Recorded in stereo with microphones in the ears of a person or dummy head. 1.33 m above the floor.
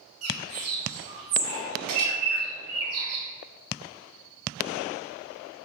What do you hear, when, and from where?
0.2 s a bird: 50° right (ahead or behind), 1.3 m